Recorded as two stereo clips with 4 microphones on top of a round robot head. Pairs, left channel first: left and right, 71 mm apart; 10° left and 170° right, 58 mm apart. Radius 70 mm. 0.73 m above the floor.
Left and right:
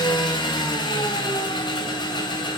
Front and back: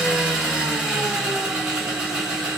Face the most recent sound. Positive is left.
turn(degrees=115)